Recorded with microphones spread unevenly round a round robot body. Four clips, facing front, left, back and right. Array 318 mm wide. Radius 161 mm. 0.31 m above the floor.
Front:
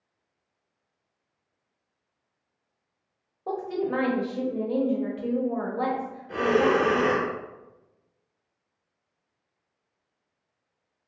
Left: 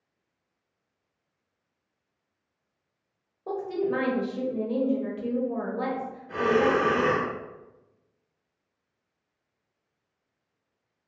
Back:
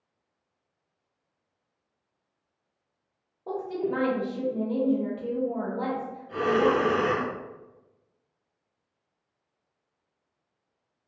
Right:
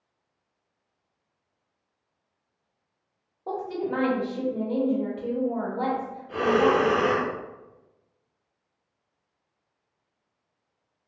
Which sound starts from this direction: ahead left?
A woman speaking, at 3.5 s.